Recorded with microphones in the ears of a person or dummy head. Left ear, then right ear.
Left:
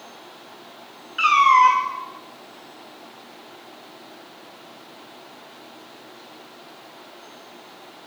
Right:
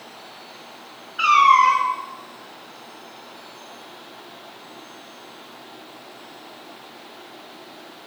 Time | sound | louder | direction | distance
1.2 | a cat meowing | even | 30° left (ahead or behind) | 0.6 m